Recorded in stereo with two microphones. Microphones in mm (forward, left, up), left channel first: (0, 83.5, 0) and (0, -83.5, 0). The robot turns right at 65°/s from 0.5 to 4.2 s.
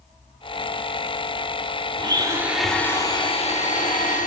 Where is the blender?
40° right, 1.0 m; by 4.3 s 105° left, 1.0 m.